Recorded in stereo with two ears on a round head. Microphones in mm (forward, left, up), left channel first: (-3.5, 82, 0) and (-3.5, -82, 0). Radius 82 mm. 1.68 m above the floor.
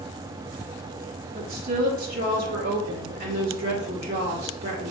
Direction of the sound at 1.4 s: 55° right (ahead or behind).